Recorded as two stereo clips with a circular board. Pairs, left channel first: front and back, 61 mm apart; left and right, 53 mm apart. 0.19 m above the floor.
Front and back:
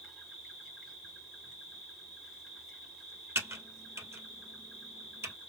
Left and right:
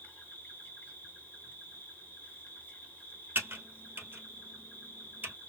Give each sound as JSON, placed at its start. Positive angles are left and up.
{"t": 0.0, "sound": "an insect", "azimuth_deg": 105, "distance_m": 1.3}
{"t": 3.4, "sound": "typing on a keyboard", "azimuth_deg": -140, "distance_m": 1.3}